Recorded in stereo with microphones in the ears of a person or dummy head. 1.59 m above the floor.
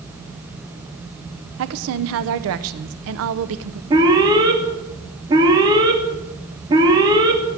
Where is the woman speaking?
70° right (ahead or behind), 0.8 m.